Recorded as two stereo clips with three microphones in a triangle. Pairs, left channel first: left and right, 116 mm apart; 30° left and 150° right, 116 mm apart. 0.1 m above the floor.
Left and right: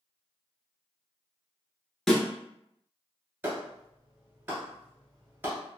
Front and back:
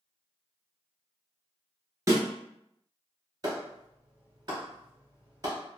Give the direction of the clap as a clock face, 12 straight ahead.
5 o'clock.